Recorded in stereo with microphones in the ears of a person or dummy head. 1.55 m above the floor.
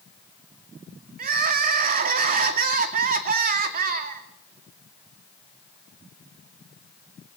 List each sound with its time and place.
1.2 s crying: 45° right (ahead or behind), 2.5 m